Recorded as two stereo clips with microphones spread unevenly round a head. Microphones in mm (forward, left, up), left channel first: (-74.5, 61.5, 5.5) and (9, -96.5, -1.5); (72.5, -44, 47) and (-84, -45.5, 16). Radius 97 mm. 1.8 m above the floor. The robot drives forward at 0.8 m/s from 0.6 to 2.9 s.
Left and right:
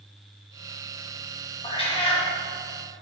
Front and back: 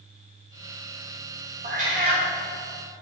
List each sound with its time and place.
1.6 s a cat meowing: 135° left, 1.2 m; by 2.3 s 155° left, 1.5 m